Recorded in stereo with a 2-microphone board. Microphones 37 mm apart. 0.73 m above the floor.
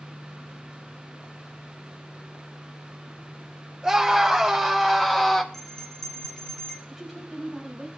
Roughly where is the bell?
Centre.